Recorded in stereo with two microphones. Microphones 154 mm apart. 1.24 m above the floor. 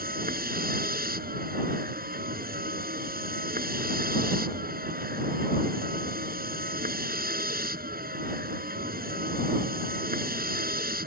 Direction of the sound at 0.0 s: 75° right (ahead or behind).